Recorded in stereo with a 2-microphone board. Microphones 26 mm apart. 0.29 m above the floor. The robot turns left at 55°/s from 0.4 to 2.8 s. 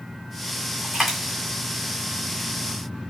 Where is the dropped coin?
15° right (ahead or behind), 1.2 m; by 1.4 s 15° left (ahead or behind), 1.2 m.